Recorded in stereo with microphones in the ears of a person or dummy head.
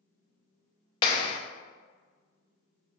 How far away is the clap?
About 0.6 m.